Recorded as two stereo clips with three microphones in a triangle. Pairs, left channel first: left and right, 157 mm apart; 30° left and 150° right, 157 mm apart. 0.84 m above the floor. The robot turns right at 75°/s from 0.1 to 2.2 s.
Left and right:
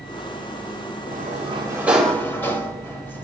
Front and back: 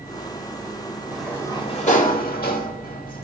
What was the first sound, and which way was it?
A sliding door, 65° right.